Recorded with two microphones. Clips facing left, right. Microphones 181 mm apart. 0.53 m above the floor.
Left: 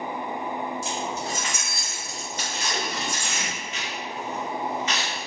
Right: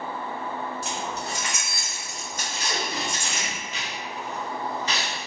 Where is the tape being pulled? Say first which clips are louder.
Right 1 dB; 35° right (ahead or behind), 0.9 m.